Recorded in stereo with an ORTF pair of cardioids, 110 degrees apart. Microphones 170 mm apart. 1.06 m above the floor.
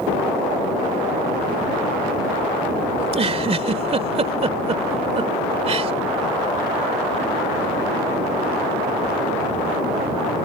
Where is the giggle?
35° right.